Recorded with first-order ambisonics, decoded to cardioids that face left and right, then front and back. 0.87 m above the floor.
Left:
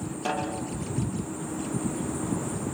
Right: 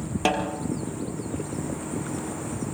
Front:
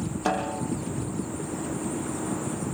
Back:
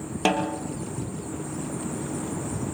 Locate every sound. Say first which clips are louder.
0.2 s a snare drum: right 5 dB, back 3 dB; 140° right, 3.5 m